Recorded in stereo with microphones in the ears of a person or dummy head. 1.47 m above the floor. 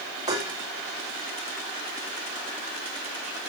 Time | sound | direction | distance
0.3 | dishes clattering | 20° right (ahead or behind) | 2 m